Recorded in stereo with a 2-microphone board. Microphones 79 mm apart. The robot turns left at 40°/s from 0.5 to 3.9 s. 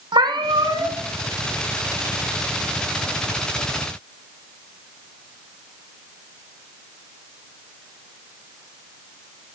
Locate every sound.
0.1 s a cat meowing: 80° right, 1.0 m; by 1.0 s 70° right (ahead or behind), 1.0 m